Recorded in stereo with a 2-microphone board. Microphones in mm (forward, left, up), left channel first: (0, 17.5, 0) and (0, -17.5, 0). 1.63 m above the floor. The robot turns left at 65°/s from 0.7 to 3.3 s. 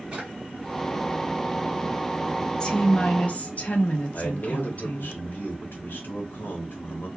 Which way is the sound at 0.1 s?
30° right (ahead or behind).